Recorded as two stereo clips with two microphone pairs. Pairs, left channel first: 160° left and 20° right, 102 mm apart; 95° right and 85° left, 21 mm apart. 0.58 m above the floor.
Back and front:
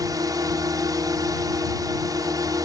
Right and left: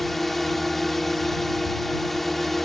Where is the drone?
20° right.